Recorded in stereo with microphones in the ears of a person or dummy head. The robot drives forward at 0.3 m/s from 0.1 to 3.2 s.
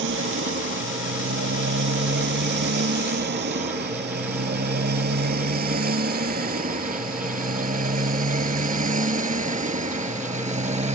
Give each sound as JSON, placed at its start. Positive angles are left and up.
{"t": 0.0, "sound": "a motorcycle", "side_deg": -65}